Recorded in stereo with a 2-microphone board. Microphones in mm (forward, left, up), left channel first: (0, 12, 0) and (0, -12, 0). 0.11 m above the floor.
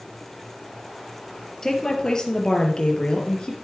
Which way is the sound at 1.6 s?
25° left (ahead or behind).